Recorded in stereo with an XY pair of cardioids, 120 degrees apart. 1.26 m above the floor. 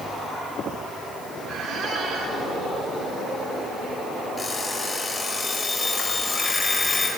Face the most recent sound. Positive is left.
turn(degrees=20)